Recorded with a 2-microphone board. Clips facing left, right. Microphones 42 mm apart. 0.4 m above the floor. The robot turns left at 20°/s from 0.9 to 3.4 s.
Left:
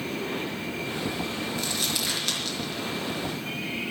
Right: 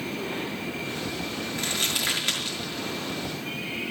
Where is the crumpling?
40° right (ahead or behind), 6 m; by 3.9 s 5° right (ahead or behind), 6 m.